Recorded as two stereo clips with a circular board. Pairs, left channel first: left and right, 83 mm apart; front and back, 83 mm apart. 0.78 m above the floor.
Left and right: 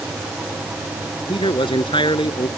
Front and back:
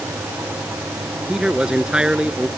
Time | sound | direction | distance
1.3 | a man speaking | 100° left | ?